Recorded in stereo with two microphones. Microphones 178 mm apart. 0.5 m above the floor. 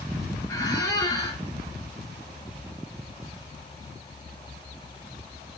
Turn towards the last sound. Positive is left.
turn(degrees=15)  # may be behind; listen again after turning